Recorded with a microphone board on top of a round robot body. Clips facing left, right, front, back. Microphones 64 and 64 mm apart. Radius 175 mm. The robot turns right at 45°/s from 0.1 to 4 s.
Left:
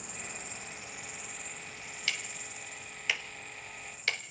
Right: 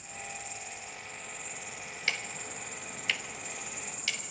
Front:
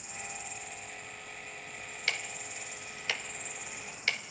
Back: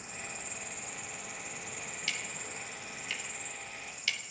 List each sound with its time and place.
0.0 s an insect: 120° left, 0.8 m; by 4.3 s 65° right, 0.8 m
2.1 s ticking: 40° right, 1.1 m; by 4.2 s 45° left, 1.1 m